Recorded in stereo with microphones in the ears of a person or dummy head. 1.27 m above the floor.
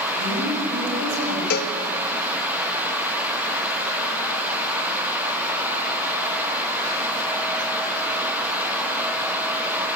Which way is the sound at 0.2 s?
65° right (ahead or behind).